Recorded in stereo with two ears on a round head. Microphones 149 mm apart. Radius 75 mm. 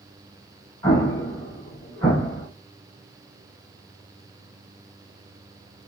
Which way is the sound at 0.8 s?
20° left (ahead or behind).